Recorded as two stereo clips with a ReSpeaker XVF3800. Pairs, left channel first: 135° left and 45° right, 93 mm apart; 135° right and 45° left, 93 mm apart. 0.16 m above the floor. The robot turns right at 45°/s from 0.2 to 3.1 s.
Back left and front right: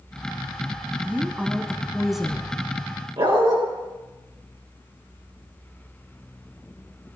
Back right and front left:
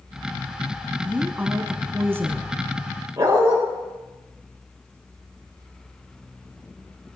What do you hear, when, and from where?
1.0 s a woman speaking: 10° right, 1.1 m; by 2.5 s 60° left, 1.1 m
3.2 s a dog barking: 15° right, 7.5 m